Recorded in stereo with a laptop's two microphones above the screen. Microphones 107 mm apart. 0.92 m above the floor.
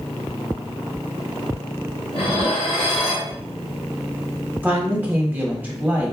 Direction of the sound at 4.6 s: 15° right (ahead or behind).